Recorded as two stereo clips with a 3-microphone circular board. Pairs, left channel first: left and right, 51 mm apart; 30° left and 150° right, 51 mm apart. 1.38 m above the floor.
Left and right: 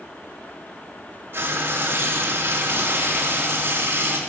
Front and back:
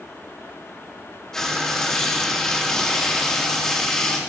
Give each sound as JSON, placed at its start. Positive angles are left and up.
{"t": 1.3, "sound": "frying", "azimuth_deg": -50, "distance_m": 3.0}